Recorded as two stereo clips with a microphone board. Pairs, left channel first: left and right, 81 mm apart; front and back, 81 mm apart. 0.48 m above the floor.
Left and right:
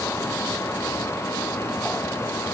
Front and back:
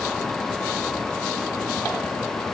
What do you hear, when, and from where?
Only background noise.